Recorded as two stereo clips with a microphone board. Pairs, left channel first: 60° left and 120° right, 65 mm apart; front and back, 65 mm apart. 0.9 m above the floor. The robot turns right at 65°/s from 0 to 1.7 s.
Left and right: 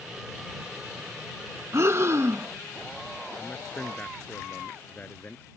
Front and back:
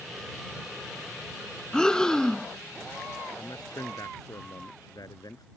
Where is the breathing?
80° right.